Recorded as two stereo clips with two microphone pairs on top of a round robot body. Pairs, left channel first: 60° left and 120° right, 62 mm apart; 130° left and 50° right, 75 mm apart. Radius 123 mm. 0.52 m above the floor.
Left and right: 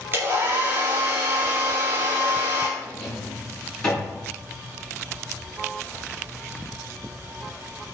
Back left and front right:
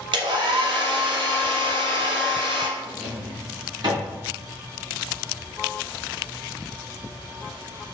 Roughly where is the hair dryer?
Ahead right.